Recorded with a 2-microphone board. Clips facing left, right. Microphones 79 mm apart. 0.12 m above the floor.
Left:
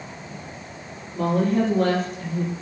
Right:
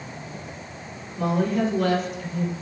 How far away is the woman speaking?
About 3.5 m.